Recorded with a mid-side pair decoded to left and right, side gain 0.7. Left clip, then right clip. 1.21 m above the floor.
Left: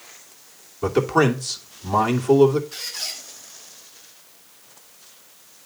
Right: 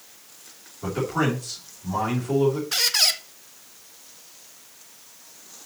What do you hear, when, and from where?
0.8 s a man speaking: 40° left, 2.5 m
2.7 s a squeak: 50° right, 1.0 m